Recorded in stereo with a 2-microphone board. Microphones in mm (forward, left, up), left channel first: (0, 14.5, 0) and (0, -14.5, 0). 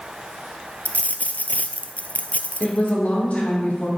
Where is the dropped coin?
65° left (ahead or behind), 0.6 m.